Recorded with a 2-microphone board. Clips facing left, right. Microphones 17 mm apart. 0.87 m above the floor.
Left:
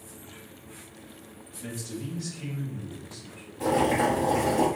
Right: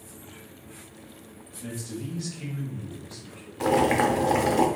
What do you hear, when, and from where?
1.6 s a man speaking: 25° left (ahead or behind), 1.0 m; by 3.5 s 65° right (ahead or behind), 2 m
3.6 s boiling: 55° right (ahead or behind), 0.8 m